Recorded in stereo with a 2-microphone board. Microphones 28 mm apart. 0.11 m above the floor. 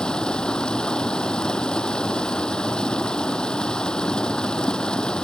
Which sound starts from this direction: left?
Running water, at 0.0 s.